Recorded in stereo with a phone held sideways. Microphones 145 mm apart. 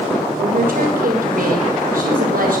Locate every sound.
0.4 s a woman speaking: 75° right (ahead or behind), 6 m